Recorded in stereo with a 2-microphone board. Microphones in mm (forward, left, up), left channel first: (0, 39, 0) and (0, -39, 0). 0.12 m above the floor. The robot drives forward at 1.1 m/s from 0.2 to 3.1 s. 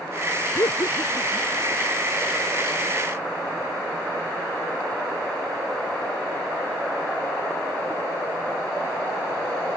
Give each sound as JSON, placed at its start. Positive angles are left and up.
{"t": 0.6, "sound": "laughter", "side_deg": 55}